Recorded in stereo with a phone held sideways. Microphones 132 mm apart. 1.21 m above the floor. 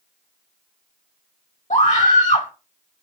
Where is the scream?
75° left (ahead or behind), 3 m.